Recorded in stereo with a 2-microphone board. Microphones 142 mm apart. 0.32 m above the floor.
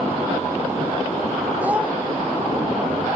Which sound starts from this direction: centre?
A child speaking, at 1.6 s.